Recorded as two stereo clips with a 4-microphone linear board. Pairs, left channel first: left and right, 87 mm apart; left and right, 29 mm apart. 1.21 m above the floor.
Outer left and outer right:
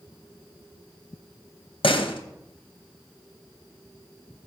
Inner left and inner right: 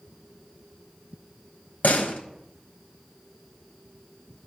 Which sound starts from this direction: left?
A door slam, at 1.8 s.